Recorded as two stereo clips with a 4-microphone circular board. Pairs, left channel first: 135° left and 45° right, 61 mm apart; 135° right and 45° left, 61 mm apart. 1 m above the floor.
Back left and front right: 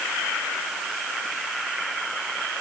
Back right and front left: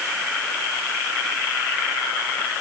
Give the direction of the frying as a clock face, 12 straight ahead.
No frying in this recording.